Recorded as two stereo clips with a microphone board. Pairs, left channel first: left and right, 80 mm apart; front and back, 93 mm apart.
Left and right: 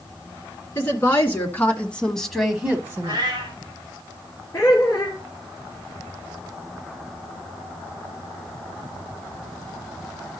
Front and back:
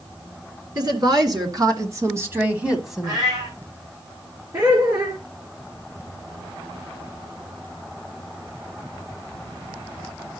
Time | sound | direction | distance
0.8 | a woman speaking | 145° left | 2.5 m
3.0 | a cat meowing | 130° right | 3.5 m
4.5 | laughter | 145° left | 2.5 m